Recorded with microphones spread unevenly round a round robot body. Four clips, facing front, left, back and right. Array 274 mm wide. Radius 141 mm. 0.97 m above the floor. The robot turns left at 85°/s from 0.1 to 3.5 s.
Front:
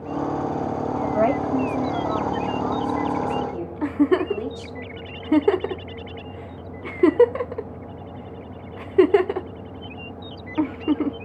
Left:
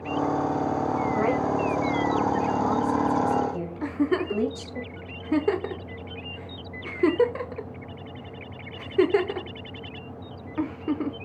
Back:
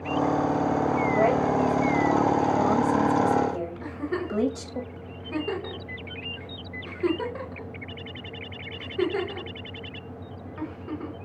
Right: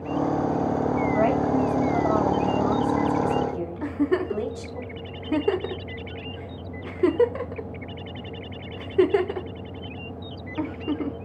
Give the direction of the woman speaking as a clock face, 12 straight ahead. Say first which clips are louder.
Right 3 dB, front 3 dB; 12 o'clock.